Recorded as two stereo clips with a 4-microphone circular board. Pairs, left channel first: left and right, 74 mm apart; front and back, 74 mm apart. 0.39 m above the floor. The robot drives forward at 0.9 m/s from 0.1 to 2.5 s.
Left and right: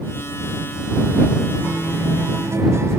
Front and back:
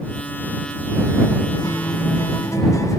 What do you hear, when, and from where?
1.6 s a guitar: 25° right, 2 m; by 3.0 s 40° right, 1.5 m